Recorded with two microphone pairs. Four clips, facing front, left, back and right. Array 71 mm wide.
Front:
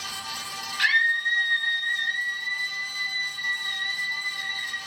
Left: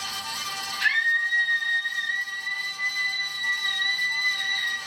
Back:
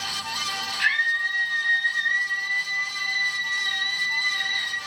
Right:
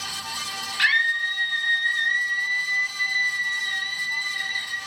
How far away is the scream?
About 4 m.